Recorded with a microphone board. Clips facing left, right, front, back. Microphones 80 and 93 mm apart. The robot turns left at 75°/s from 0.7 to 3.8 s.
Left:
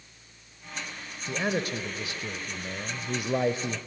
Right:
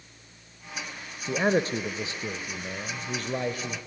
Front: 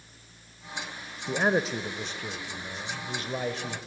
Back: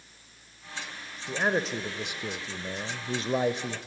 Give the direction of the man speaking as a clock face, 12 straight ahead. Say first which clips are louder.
Right 5 dB, front 2 dB; 2 o'clock.